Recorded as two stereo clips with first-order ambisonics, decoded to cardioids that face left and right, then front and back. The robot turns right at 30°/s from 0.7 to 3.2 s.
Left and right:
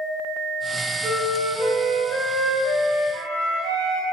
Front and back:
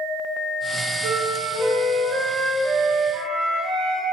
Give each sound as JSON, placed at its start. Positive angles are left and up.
{"t": 1.0, "sound": "a flute", "azimuth_deg": -155, "distance_m": 2.0}